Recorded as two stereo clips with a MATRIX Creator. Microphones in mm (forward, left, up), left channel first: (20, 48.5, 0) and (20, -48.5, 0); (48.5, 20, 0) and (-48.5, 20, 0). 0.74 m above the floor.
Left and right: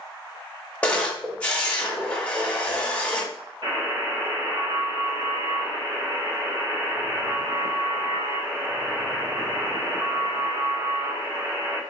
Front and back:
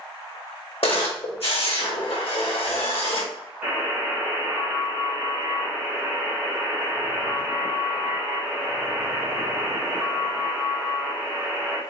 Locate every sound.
0.8 s a camera shutter: 15° left, 1.0 m
3.6 s a buzzer: 110° right, 1.5 m